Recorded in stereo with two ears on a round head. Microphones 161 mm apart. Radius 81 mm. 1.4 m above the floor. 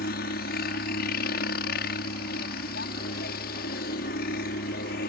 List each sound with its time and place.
0.0 s a helicopter: 60° left (ahead or behind)